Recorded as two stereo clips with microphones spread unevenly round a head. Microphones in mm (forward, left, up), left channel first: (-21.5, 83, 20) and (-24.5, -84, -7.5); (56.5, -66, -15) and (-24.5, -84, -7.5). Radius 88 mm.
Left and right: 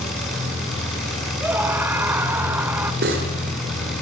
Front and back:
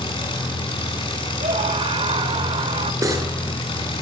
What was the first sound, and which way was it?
An engine running, straight ahead.